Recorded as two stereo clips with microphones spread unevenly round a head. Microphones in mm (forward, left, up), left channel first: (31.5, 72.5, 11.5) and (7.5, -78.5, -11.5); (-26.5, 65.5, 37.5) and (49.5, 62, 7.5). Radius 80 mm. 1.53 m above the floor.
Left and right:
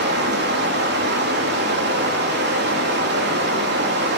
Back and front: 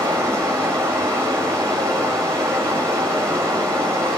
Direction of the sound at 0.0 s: 80° right.